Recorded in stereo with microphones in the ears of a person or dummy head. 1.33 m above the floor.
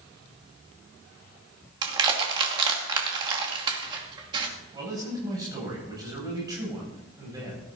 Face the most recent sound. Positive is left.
turn(degrees=-20)  # may be behind; listen again after turning